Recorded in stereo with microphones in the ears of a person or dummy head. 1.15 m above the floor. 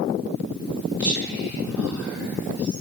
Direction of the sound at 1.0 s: 5° left (ahead or behind).